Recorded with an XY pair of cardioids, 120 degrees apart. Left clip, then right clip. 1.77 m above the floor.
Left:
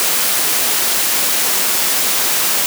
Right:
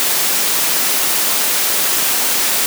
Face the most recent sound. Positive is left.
No sound to turn to.